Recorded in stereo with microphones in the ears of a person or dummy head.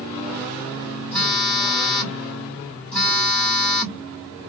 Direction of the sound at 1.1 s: Centre (ahead or behind).